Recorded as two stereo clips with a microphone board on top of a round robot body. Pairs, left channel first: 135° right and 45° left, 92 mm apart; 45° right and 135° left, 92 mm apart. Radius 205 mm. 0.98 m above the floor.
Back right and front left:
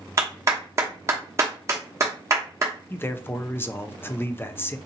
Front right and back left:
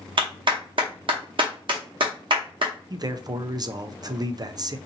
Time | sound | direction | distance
0.2 | a clap | 105° left | 0.7 m
2.9 | a man speaking | 165° left | 0.6 m